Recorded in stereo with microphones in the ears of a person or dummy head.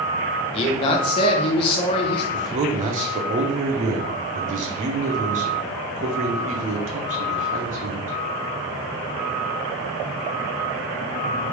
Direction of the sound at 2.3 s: 40° right (ahead or behind).